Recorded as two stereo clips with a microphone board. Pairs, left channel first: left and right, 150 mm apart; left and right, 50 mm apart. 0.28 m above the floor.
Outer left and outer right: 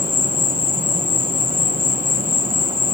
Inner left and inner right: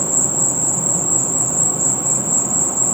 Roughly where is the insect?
Right.